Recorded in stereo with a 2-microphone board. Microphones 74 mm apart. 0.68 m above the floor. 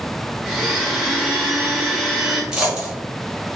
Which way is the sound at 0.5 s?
Centre (ahead or behind).